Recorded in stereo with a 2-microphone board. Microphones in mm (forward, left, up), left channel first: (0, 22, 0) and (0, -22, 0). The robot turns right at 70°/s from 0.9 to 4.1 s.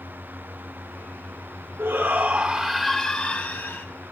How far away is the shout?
About 1.4 m.